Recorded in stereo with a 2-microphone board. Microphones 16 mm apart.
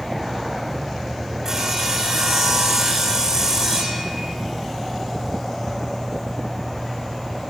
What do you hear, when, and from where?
1.4 s sawing: 25° right (ahead or behind), 6 m